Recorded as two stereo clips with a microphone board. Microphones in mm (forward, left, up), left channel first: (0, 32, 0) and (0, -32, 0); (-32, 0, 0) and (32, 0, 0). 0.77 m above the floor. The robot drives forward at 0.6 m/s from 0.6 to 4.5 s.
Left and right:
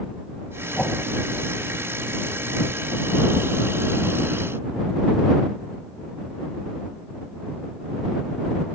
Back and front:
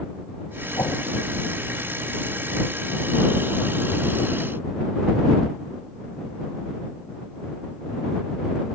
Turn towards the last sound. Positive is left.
turn(degrees=170)